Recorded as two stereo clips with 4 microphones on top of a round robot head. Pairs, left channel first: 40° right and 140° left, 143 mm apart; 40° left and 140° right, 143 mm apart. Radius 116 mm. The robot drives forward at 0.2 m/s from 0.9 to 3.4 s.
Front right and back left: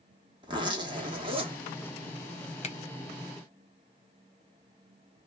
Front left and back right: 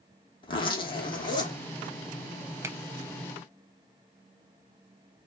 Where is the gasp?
I don't hear a gasp.